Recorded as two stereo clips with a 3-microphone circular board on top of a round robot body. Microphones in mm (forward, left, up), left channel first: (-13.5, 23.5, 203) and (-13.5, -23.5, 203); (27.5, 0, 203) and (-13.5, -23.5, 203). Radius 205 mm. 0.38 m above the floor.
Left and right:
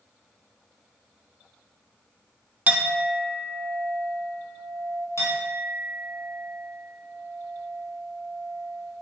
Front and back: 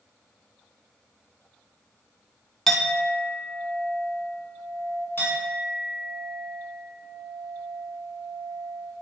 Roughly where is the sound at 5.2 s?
Left.